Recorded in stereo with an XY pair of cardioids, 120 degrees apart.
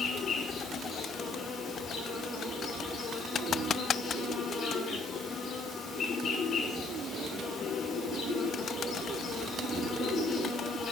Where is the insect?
55° left, 6 m.